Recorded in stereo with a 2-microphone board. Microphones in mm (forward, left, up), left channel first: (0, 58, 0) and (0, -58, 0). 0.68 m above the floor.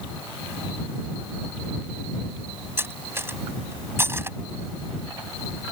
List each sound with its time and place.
2.8 s cutlery clinking: 20° right (ahead or behind)